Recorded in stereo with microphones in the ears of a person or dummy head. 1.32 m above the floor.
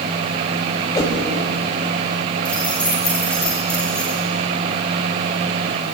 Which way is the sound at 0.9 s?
25° left (ahead or behind).